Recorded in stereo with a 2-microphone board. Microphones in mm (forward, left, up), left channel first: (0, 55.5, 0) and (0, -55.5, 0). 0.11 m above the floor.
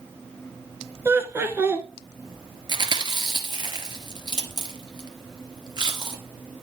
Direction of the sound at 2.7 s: 40° right (ahead or behind).